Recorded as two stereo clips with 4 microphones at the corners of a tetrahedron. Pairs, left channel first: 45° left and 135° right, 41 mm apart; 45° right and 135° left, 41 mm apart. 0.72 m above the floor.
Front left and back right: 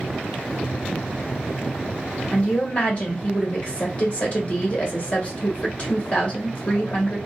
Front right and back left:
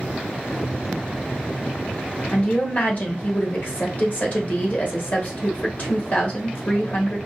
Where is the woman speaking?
5° right, 1.3 m.